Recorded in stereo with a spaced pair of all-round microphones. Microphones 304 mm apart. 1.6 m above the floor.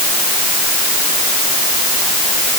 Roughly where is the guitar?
I don't hear a guitar.